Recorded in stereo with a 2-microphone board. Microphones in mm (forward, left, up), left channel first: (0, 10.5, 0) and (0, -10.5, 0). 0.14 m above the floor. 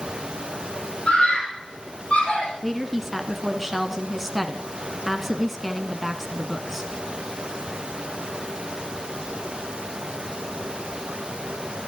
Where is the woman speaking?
Centre (ahead or behind), 1.1 m.